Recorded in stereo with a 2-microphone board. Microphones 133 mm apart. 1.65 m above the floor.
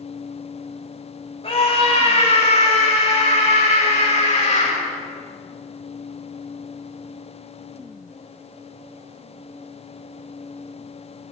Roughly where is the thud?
I don't hear a thud.